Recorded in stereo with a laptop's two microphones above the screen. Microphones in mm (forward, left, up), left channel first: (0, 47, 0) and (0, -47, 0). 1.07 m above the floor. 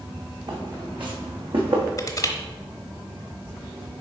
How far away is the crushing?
About 1.0 m.